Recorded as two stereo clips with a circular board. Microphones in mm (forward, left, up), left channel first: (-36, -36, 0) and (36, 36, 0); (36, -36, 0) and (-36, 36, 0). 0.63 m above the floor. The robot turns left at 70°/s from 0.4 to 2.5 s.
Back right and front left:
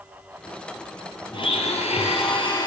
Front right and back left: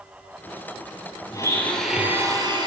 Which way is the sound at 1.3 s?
100° right.